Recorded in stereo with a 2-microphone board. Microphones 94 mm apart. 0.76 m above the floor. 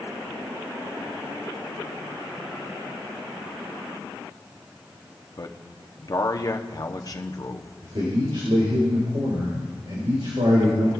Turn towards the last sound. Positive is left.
turn(degrees=-70)  # may be behind; listen again after turning